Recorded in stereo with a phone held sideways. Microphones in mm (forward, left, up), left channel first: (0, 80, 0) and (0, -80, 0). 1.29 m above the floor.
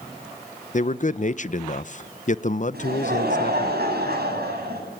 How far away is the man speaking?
About 0.7 m.